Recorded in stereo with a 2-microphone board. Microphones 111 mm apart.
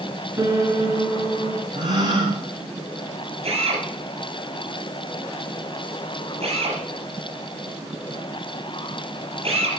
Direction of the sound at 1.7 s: 55° right (ahead or behind).